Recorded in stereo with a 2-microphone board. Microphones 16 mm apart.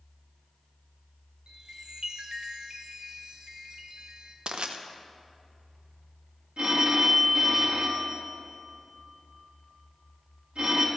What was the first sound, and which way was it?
A chime, 55° right (ahead or behind).